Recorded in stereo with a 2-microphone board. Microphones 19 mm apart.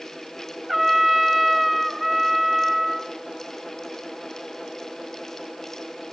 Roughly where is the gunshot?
No gunshot in this recording.